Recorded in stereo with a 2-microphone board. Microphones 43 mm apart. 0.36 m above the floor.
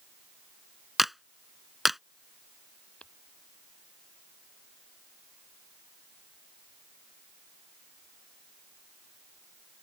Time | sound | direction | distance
1.0 | a clap | 5° right (ahead or behind) | ?
3.0 | tapping | 25° left (ahead or behind) | ?